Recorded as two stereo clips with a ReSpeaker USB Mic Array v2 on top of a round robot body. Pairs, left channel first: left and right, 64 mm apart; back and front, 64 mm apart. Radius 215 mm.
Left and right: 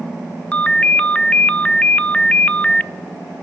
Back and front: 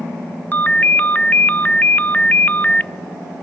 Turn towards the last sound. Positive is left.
turn(degrees=145)